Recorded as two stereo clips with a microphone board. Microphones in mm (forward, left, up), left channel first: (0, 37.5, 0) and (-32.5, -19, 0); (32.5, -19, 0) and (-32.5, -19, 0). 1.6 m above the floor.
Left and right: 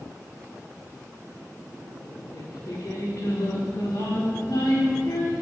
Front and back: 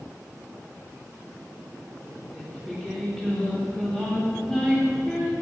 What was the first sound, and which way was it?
Singing, 80° left.